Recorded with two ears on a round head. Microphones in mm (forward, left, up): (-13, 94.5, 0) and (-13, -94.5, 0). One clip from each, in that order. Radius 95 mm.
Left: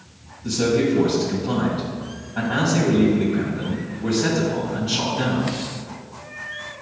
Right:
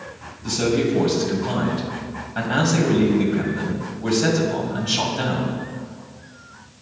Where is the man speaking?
70° right (ahead or behind), 2.5 m.